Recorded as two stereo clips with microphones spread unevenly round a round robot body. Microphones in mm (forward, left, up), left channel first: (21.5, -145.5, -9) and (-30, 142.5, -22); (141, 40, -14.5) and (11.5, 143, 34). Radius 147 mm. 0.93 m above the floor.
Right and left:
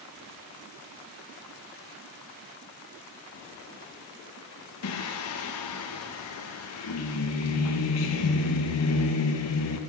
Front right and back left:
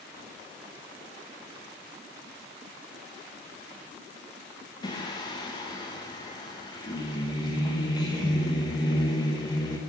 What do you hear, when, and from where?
4.8 s singing: 75° right, 1.1 m